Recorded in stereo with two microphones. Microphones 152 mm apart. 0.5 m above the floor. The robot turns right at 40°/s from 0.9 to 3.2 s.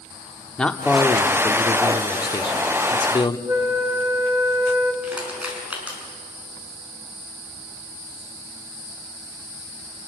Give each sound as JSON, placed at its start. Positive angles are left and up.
{"t": 0.6, "sound": "a man speaking", "azimuth_deg": 15, "distance_m": 1.0}
{"t": 3.5, "sound": "a flute", "side_deg": -20, "distance_m": 1.9}
{"t": 5.0, "sound": "crushing", "side_deg": -10, "distance_m": 5.5}